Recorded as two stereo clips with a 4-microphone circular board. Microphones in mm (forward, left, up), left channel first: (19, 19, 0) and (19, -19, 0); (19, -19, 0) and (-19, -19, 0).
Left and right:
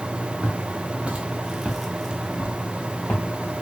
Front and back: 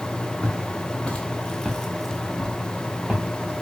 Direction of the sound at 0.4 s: 55° right.